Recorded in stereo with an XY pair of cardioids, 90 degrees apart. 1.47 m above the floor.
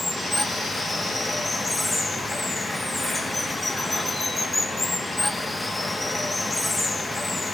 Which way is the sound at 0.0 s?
15° left.